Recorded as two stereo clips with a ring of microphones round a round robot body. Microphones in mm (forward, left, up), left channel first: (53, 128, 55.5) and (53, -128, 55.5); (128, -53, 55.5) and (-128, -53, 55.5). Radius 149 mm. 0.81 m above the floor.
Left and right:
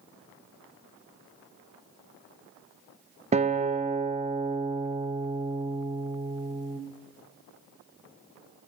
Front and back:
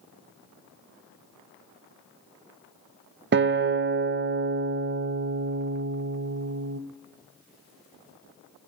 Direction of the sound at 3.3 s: 150° right.